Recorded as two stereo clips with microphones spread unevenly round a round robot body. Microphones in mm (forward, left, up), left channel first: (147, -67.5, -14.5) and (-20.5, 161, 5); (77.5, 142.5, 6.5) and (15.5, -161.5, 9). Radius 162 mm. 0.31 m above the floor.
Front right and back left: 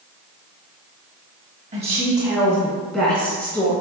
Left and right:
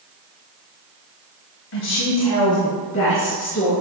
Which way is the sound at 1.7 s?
60° left.